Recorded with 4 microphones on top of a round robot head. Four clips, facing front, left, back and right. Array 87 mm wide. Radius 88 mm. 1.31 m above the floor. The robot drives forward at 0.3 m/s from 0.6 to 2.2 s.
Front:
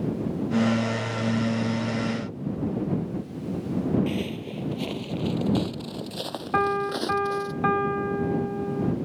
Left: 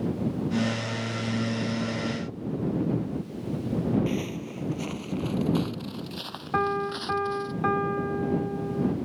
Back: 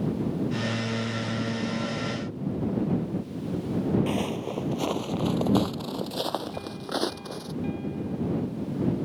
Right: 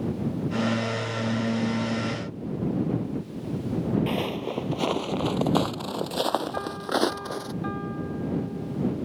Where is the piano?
25° left.